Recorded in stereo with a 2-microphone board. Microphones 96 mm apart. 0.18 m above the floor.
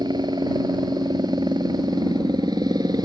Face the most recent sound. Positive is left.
turn(degrees=-45)  # may be behind; listen again after turning